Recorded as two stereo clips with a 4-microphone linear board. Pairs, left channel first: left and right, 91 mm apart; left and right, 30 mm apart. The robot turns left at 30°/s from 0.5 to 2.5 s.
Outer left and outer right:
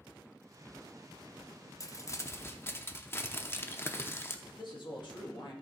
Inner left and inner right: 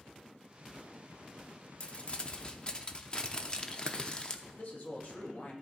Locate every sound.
1.8 s crumpling: 40° left (ahead or behind), 0.6 m; by 4.3 s 25° left (ahead or behind), 0.6 m
4.5 s a man speaking: 60° left (ahead or behind), 1.7 m